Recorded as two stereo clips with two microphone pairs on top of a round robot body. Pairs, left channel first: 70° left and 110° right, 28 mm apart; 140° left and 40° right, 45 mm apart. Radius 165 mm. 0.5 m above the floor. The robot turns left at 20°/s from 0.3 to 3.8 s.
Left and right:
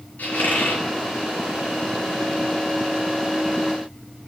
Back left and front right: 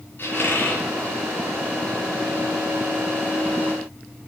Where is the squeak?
90° left, 2.5 m; by 0.8 s 75° left, 2.5 m.